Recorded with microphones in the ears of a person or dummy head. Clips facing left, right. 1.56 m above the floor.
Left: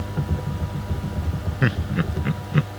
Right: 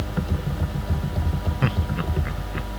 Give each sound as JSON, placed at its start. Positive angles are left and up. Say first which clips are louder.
{"t": 1.6, "sound": "laughter", "louder": "left 4 dB", "side_deg": 15}